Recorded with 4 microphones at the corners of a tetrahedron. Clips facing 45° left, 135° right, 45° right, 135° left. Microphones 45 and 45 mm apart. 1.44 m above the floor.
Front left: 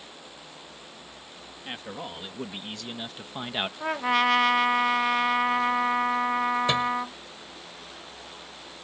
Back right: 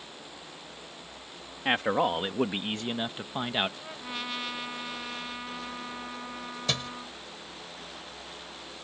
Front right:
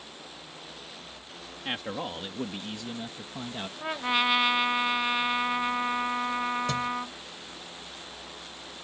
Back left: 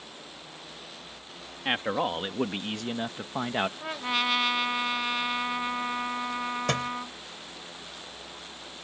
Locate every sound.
1.6 s a man speaking: 165° right; by 3.7 s 135° left
3.8 s a trumpet: 35° left
6.7 s a thud: 115° left